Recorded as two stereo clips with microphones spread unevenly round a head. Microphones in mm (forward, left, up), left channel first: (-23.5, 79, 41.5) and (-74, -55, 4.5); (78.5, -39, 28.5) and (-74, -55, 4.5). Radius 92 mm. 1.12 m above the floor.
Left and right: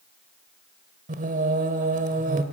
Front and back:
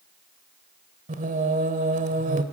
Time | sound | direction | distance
1.1 | singing | 140° right | 1.4 m